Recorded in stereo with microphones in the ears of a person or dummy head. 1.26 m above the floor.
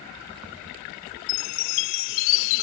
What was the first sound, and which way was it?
A chime, 60° left (ahead or behind).